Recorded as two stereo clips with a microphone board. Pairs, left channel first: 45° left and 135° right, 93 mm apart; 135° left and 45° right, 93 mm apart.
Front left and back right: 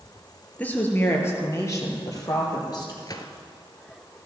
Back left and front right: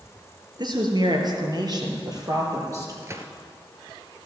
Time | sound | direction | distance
0.6 | a woman speaking | 25° right | 3 m
3.0 | a gunshot | 10° left | 1.4 m